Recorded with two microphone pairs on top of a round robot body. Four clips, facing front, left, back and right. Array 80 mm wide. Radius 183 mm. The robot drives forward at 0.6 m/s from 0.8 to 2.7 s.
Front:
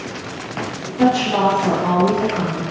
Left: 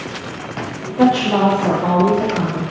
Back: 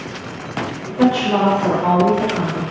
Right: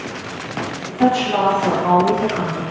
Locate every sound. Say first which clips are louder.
1.0 s a woman speaking: left 2 dB, even; 105° left, 0.9 m; by 2.6 s 145° left, 1.5 m